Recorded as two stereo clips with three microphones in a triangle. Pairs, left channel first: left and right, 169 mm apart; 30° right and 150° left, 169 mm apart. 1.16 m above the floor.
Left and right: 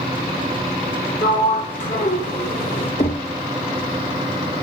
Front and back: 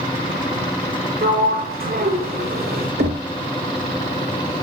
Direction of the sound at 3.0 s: 140° left.